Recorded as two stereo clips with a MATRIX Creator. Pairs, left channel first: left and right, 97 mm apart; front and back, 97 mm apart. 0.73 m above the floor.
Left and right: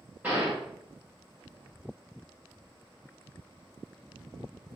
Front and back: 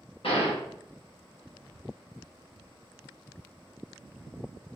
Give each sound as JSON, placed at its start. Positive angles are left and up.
{"t": 0.2, "sound": "a gunshot", "azimuth_deg": -15, "distance_m": 2.5}